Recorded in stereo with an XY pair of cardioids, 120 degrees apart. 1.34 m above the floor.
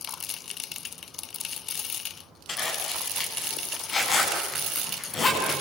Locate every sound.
2.5 s a zipper: 40° left, 10 m